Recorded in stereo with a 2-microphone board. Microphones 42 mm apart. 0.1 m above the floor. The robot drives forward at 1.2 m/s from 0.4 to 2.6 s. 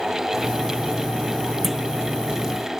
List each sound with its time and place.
1.6 s a clunk: 5° right (ahead or behind)